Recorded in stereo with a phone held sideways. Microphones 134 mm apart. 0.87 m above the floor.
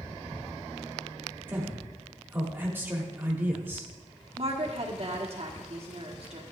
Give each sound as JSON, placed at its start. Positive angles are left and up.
{"t": 1.5, "sound": "a man speaking", "side_deg": -15, "distance_m": 1.7}
{"t": 4.4, "sound": "a woman speaking", "side_deg": -50, "distance_m": 1.6}